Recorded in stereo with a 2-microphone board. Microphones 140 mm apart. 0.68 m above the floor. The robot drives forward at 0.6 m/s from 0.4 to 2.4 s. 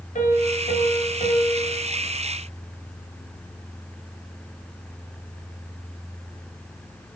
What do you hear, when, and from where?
0.1 s a piano: 75° left (ahead or behind), 1.4 m; by 1.8 s 50° left (ahead or behind), 1.8 m